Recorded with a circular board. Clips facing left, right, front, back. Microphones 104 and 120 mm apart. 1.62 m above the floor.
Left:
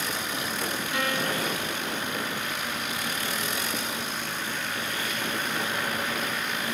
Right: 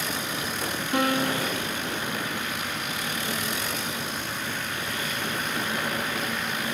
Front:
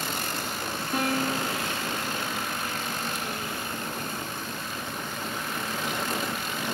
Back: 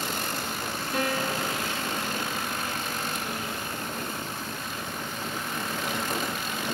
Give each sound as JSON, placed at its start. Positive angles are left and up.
{"t": 0.9, "sound": "a piano", "azimuth_deg": -45, "distance_m": 3.0}